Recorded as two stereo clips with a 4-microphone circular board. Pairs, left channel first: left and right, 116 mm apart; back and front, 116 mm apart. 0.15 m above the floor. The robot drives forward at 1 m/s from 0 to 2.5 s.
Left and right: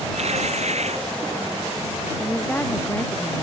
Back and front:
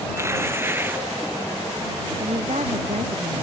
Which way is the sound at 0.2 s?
65° right.